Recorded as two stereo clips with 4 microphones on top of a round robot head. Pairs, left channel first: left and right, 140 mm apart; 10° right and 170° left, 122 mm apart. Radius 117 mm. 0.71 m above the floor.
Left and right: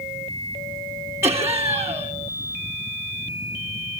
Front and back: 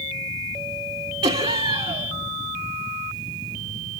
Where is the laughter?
160° right, 2 m.